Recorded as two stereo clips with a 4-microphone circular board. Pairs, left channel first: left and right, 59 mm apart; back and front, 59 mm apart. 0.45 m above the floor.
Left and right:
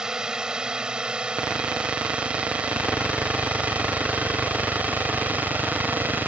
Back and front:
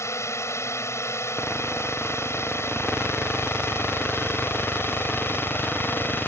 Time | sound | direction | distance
0.0 | a drone | 165° right | ?